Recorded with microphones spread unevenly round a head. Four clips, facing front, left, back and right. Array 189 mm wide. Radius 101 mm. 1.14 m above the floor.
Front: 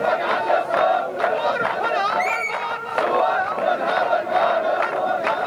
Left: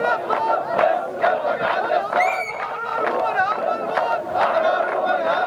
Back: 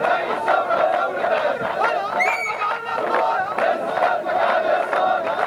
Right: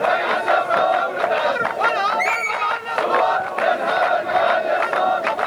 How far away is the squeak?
About 1.6 m.